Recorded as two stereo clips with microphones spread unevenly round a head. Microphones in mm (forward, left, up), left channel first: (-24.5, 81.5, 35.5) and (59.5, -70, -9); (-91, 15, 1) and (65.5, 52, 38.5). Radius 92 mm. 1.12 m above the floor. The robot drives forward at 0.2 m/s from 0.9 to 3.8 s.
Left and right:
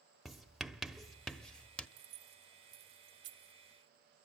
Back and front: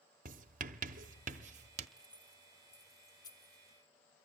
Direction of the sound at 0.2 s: 35° left.